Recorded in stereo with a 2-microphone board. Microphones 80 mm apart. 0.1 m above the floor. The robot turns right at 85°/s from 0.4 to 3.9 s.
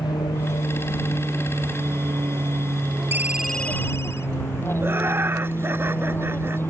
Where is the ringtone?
30° right; by 4.3 s 40° left.